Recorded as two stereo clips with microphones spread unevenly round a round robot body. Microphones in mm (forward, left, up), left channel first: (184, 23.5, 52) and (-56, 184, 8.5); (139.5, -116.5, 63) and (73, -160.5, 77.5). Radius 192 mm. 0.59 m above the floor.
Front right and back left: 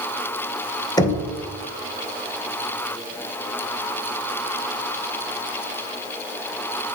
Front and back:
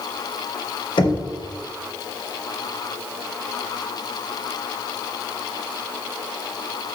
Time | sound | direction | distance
1.0 | knocking | 45° left | 2.0 m